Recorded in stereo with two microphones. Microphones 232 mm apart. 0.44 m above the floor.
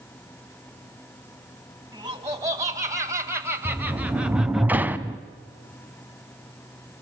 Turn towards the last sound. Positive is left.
turn(degrees=-10)  # may be behind; listen again after turning